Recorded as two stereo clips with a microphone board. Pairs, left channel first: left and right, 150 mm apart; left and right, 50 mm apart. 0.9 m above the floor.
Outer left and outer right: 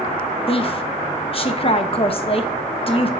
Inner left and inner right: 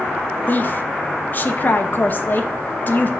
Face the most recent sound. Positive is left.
turn(degrees=40)  # may be behind; listen again after turning